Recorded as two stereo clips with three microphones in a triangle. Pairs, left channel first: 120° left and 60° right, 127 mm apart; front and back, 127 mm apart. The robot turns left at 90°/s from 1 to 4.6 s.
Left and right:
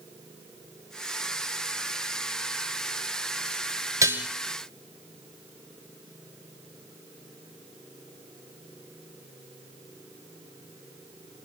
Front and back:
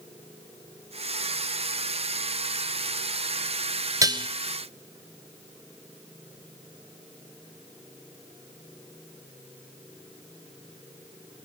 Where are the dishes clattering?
120° right, 1.3 m; by 4.3 s 145° right, 1.3 m.